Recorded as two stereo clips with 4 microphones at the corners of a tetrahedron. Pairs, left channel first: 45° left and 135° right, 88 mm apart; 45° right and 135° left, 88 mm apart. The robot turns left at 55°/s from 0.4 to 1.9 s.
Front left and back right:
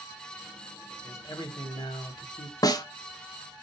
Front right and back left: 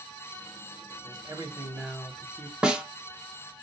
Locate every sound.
1.0 s a man speaking: 105° left, 1.1 m; by 2.5 s 60° left, 1.1 m
2.6 s a snare drum: 60° left, 0.5 m